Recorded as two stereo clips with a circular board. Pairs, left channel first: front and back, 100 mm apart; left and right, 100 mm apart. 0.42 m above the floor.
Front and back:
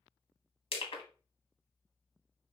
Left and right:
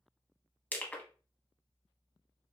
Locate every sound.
0.7 s crushing: 15° left, 0.7 m